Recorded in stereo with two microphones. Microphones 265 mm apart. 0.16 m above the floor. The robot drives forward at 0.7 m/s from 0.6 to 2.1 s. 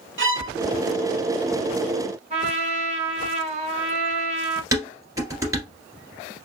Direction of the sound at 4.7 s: 15° right (ahead or behind).